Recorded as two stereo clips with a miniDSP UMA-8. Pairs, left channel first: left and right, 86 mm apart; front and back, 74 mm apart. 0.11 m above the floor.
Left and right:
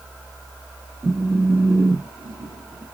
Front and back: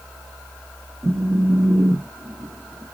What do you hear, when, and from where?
1.0 s a phone buzzing: 155° right, 1.0 m